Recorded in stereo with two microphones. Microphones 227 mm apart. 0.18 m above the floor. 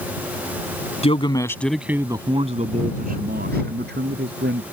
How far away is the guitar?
I don't hear a guitar.